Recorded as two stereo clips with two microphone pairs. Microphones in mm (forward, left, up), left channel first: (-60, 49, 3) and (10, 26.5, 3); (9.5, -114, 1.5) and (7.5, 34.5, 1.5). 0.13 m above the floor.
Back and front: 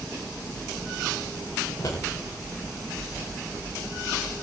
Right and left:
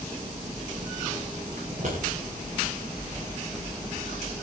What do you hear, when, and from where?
1.7 s scissors: 125° left, 9.5 m